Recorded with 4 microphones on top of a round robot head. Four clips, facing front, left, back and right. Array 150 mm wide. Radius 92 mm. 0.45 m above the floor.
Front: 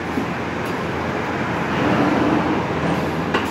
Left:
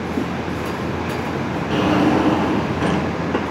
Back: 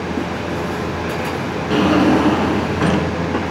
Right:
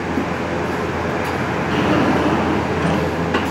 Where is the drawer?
175° left, 2 m.